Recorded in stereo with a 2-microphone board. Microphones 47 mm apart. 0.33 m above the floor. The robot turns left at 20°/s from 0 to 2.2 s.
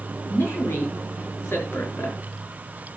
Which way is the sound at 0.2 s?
65° left (ahead or behind).